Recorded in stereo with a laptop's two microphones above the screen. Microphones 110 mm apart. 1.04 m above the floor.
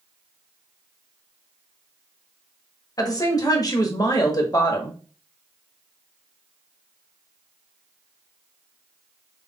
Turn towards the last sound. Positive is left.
turn(degrees=35)  # may be behind; listen again after turning